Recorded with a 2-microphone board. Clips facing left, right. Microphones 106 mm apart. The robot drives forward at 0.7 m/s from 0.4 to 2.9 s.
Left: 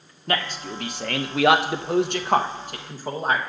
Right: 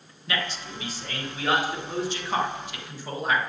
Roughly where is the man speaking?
Left.